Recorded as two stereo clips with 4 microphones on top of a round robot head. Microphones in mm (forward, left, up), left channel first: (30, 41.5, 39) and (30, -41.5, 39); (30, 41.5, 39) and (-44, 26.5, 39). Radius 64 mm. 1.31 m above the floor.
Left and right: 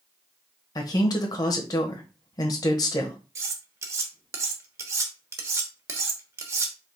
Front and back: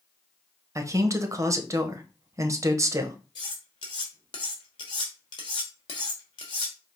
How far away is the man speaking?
About 1.0 m.